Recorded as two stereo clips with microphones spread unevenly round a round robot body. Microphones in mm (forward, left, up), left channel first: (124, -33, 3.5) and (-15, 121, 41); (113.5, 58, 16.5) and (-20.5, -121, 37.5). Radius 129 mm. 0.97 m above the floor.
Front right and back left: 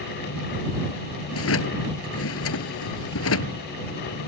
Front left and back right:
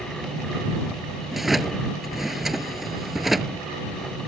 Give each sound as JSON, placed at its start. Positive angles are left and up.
{"t": 1.3, "sound": "a drawer", "azimuth_deg": -40}